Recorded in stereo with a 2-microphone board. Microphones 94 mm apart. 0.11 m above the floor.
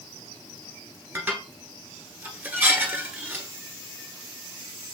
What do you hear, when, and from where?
1.1 s dishes clattering: 20° right (ahead or behind), 1.1 m